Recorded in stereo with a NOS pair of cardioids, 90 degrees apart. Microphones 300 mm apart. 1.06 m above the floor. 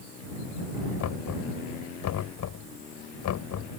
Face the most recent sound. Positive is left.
turn(degrees=70)